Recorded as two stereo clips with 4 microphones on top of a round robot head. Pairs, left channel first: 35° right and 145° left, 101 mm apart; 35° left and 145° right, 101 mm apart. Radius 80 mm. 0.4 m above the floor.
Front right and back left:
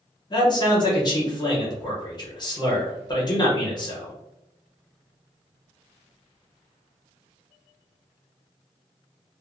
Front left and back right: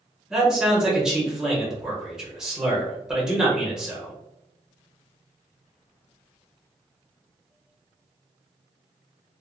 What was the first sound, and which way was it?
A man speaking, 60° right.